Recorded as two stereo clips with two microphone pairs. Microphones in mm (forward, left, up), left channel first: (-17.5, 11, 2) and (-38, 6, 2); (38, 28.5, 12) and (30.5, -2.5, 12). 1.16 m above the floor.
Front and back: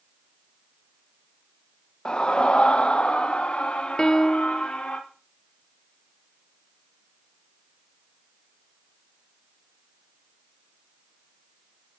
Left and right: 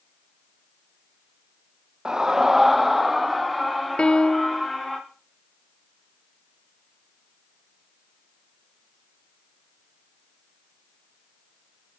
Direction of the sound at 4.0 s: 45° left.